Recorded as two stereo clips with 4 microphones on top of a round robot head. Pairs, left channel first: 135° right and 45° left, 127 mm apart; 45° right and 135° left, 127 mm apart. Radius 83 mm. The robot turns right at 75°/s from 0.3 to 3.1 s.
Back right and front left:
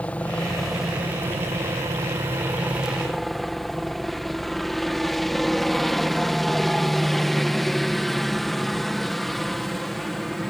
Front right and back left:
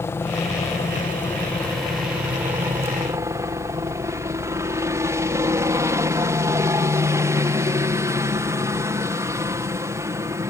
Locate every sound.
0.0 s a helicopter: 75° right; by 10.5 s 135° left